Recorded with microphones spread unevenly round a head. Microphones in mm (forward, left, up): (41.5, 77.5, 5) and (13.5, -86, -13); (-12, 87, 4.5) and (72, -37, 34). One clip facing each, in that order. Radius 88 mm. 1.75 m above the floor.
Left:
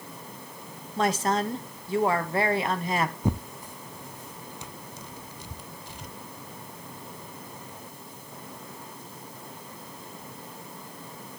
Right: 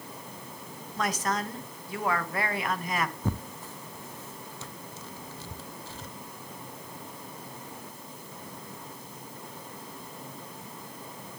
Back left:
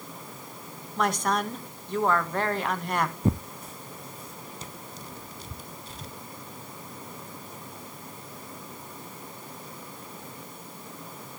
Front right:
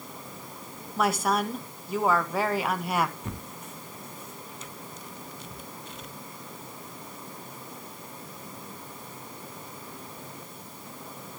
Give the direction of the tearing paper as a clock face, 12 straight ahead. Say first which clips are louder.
Left 4 dB, back left 11 dB; 9 o'clock.